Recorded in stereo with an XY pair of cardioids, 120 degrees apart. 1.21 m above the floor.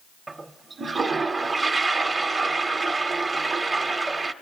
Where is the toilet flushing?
20° right, 0.6 m.